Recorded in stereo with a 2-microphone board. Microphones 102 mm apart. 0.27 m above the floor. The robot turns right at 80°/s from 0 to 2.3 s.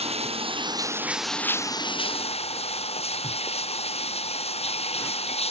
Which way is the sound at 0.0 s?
100° right.